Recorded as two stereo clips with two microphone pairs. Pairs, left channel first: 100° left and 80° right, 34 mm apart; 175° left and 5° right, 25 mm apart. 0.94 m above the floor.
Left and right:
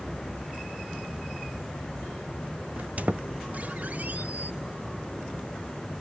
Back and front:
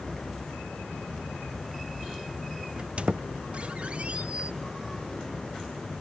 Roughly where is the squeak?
Ahead right.